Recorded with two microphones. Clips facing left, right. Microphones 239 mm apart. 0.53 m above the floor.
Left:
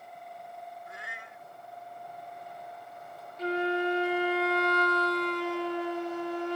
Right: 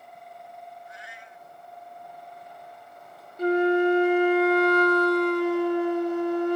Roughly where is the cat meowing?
Left.